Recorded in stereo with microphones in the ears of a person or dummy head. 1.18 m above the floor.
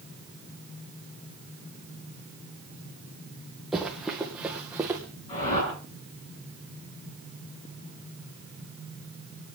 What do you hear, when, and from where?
3.7 s running footsteps: centre (ahead or behind), 3 m; by 5.0 s 10° right (ahead or behind), 3.5 m
5.3 s a whoosh: 35° left (ahead or behind), 7.5 m